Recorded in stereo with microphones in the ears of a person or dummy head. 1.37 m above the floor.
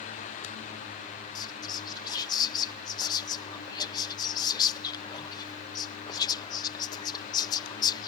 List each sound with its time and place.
1.4 s whispering: 25° left (ahead or behind)